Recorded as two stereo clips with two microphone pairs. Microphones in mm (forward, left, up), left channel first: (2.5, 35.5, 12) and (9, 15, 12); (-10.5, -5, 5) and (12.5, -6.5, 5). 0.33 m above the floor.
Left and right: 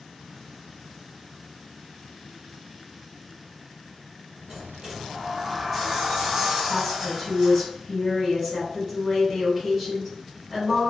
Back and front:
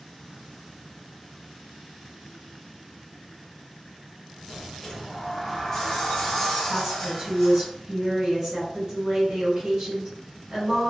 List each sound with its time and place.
4.5 s a sliding door: 110° right, 1.6 m
6.7 s a woman speaking: 5° left, 1.7 m